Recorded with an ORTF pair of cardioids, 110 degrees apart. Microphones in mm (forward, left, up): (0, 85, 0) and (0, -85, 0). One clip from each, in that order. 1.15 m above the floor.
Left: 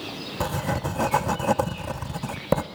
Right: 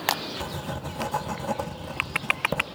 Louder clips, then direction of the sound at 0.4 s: Left 6 dB; 30° left.